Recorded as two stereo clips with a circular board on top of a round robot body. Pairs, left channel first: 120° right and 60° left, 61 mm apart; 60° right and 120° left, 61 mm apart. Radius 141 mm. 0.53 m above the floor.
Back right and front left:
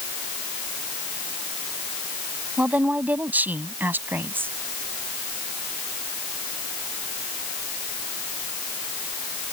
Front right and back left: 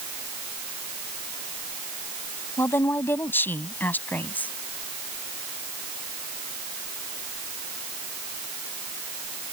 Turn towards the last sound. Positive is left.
turn(degrees=5)